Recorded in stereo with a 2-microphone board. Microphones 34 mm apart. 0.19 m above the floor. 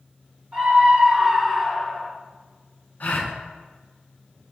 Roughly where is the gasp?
Left.